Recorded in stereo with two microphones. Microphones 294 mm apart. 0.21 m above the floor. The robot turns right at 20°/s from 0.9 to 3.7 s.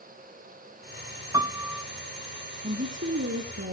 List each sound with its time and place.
1.3 s a piano: 10° right (ahead or behind), 0.8 m; by 1.9 s 5° right (ahead or behind), 0.8 m
2.6 s a woman speaking: 35° right (ahead or behind), 2.5 m; by 3.7 s 50° right (ahead or behind), 2.5 m